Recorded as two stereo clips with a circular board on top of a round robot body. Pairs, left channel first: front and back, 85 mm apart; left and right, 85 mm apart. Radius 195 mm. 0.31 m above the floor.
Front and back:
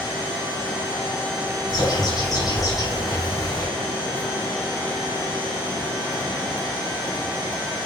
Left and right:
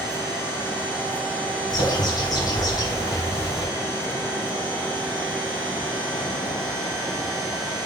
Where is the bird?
45° left, 1.4 m.